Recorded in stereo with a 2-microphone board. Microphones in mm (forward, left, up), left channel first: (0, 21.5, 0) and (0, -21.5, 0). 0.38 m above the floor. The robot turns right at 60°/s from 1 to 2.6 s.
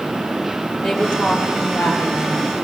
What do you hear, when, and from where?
0.8 s a woman speaking: 10° left, 7.5 m; by 2.5 s 105° left, 7.5 m